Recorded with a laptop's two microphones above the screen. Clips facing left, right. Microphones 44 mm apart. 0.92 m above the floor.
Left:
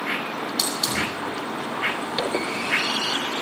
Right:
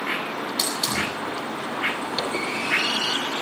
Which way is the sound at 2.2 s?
20° left (ahead or behind).